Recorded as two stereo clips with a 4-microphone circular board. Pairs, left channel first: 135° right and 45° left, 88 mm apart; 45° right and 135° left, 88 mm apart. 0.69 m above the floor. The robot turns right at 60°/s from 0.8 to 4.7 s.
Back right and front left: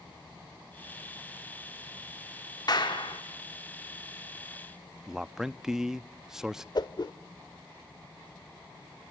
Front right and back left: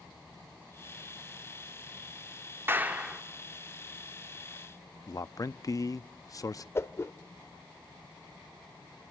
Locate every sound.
2.7 s a clap: 165° right, 1.6 m; by 3.2 s 135° right, 1.6 m
5.1 s a man speaking: 35° right, 0.5 m
6.8 s a whoosh: 100° right, 0.6 m